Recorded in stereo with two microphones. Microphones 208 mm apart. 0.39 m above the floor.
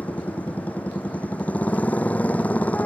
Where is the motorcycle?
5° left (ahead or behind).